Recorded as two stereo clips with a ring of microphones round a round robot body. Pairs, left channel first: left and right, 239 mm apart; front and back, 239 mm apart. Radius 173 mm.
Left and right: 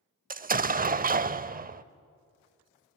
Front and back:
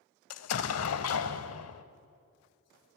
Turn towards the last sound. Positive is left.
turn(degrees=-30)